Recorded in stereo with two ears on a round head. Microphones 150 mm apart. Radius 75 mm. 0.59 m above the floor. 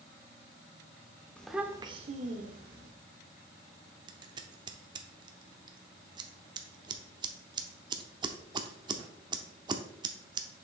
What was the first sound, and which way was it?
A child speaking, 10° left (ahead or behind).